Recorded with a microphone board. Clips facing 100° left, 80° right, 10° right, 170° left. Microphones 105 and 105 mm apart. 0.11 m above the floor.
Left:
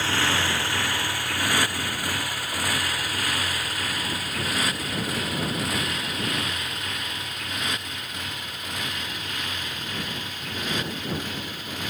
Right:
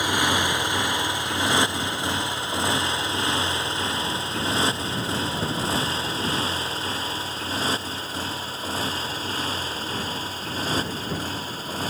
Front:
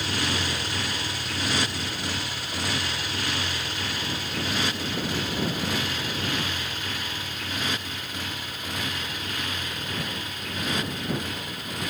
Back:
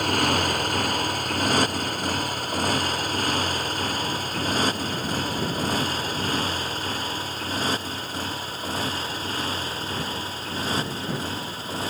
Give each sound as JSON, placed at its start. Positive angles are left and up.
{"t": 0.0, "sound": "a motorcycle", "azimuth_deg": -155}